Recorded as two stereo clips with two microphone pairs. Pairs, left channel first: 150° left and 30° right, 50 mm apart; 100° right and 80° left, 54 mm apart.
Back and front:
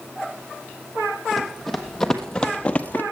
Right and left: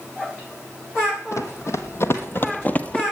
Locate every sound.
1.3 s running footsteps: 120° right, 1.7 m; by 3.0 s 170° right, 1.0 m